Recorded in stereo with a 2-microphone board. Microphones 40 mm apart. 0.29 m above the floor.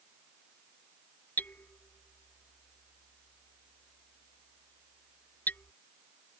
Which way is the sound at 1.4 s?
45° left (ahead or behind).